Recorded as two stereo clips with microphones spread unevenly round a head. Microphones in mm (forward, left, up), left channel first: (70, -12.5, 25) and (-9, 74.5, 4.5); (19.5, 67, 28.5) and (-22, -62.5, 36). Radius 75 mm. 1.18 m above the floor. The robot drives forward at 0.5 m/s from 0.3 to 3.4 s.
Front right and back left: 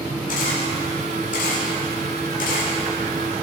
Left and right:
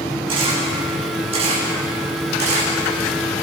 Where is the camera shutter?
55° right, 6 m; by 3.4 s 70° right, 5 m.